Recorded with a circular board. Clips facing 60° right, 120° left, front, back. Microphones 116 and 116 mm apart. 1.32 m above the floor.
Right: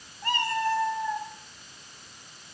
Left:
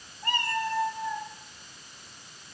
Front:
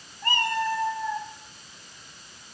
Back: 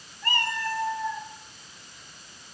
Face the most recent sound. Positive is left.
turn(degrees=-85)